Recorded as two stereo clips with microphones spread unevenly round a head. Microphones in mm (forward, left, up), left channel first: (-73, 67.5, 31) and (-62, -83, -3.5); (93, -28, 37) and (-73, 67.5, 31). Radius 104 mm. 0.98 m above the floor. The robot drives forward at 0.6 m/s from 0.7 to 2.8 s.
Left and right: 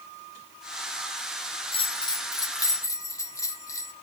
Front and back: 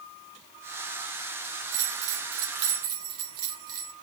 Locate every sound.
1.7 s a bell: 150° left, 0.8 m; by 3.9 s 165° left, 1.3 m